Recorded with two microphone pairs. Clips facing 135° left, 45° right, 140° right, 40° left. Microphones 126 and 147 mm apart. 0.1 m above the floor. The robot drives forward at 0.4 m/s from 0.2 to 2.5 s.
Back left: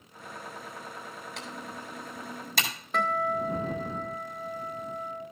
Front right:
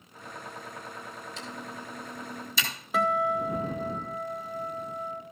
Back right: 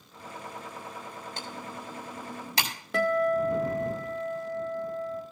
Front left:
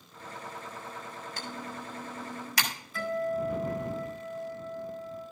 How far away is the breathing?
I don't hear breathing.